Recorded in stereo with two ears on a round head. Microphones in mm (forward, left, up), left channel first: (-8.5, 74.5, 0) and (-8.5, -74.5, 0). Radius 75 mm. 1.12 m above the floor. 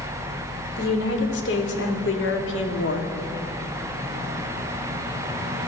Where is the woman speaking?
65° left (ahead or behind), 4.5 m; by 3.1 s 75° left (ahead or behind), 3 m.